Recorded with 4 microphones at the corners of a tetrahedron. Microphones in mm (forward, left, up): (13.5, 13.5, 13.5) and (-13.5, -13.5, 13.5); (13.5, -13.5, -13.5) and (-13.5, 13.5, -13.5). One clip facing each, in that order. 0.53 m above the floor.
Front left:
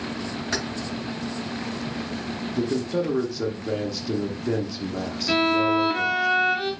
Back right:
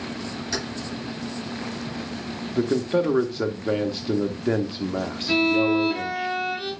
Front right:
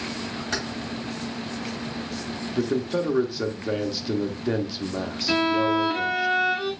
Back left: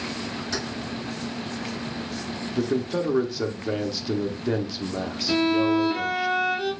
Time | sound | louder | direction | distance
0.5 | keys jangling | front left 2 dB, front right 2 dB | straight ahead | 2.5 m
2.5 | a man speaking | back right 3 dB, even | 130° right | 0.7 m
5.3 | a violin | back right 1 dB, even | 10° left | 2 m